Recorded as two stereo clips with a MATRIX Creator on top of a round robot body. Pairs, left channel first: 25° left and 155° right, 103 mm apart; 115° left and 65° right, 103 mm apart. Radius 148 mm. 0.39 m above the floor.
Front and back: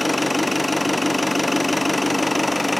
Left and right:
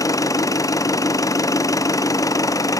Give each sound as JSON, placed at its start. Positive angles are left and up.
{"t": 0.0, "sound": "an engine running", "azimuth_deg": 110, "distance_m": 1.3}